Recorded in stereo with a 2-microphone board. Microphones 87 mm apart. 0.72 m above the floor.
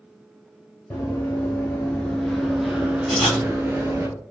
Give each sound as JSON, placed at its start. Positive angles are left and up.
{"t": 0.9, "sound": "running footsteps", "side_deg": 20, "distance_m": 1.1}
{"t": 3.1, "sound": "writing", "side_deg": 5, "distance_m": 1.5}